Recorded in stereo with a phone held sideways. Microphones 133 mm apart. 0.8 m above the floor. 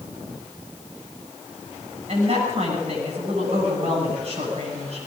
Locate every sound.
2.1 s a woman speaking: 55° right (ahead or behind), 7.5 m